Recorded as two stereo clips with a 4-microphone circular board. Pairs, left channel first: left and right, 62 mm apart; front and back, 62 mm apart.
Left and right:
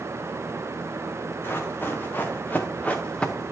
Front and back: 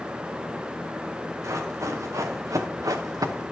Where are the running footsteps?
145° left, 1.8 m; by 3.5 s 175° left, 0.7 m.